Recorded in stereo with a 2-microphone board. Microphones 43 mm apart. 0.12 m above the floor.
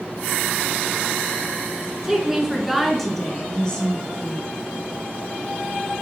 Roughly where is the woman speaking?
Centre.